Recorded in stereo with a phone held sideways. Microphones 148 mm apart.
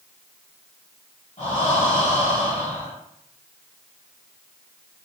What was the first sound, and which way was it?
Breathing, 50° left (ahead or behind).